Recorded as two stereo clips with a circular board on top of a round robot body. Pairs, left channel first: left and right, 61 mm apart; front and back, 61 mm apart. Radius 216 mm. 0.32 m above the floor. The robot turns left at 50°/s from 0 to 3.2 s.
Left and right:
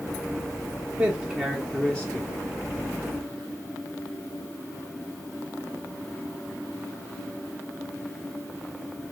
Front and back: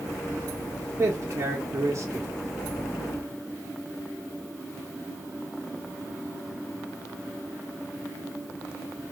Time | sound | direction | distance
1.0 | a man speaking | 145° right | 1.3 m